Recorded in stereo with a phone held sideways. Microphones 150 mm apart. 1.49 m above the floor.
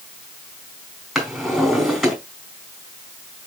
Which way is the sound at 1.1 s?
5° right (ahead or behind).